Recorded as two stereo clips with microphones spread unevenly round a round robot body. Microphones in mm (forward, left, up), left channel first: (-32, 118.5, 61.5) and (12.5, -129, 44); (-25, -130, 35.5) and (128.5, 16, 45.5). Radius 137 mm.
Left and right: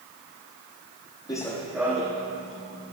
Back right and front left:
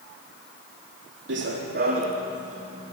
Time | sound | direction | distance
1.3 | running footsteps | 30° left | 1.0 m